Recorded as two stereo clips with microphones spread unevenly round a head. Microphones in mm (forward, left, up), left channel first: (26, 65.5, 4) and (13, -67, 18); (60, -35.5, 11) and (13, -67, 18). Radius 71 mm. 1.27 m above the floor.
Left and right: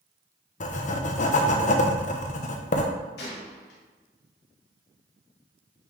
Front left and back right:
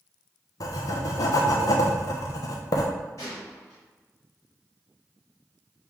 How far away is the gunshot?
About 1.9 m.